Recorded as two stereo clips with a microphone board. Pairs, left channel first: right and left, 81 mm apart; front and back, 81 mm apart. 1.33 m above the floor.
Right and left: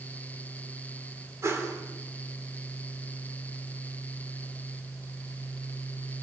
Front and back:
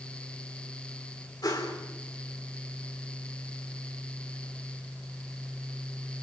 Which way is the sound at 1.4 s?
35° left.